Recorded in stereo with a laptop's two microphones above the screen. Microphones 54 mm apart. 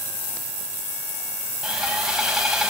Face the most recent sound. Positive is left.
turn(degrees=-5)  # may be behind; listen again after turning